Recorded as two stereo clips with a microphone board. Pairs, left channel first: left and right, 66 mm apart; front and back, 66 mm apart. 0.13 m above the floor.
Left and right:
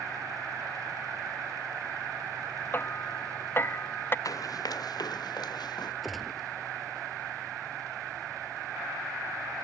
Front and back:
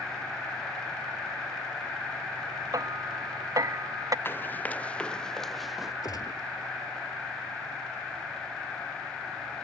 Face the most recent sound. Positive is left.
turn(degrees=0)